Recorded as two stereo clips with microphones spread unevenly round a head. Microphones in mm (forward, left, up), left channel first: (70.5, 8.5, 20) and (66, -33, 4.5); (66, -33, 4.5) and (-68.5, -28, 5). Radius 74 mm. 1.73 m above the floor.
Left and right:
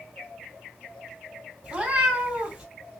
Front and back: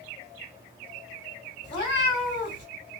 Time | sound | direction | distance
1.6 | a cat meowing | 20° right | 1.9 m